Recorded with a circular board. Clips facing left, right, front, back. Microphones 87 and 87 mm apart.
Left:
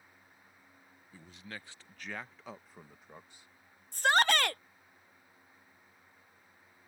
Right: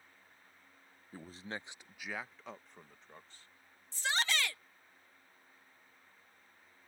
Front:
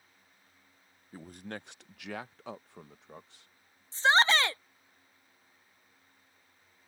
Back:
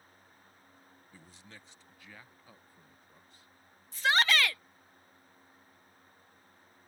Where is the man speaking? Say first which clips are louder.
Right 4 dB, front 14 dB; 45° right; by 3.8 s 15° left.